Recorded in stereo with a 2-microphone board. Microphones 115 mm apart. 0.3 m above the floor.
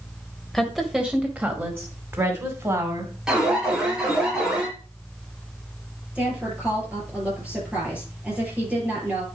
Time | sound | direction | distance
0.5 | a woman speaking | centre (ahead or behind) | 1.3 m
3.3 | an alarm | 5° right (ahead or behind) | 5 m
6.2 | a woman speaking | 15° right (ahead or behind) | 7 m